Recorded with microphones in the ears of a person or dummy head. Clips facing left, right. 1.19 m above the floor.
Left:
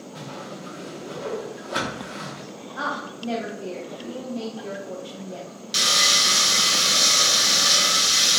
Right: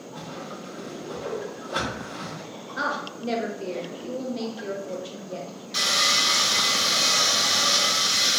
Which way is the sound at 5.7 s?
30° left (ahead or behind).